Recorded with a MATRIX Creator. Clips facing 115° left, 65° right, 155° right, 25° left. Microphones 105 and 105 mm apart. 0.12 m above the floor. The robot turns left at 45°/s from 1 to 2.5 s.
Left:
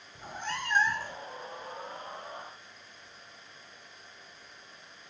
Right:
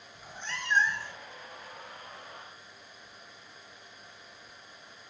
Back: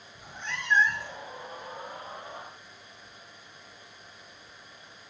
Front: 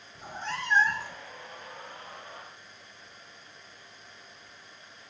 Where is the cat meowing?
75° left, 0.8 m; by 1.2 s 60° left, 0.8 m.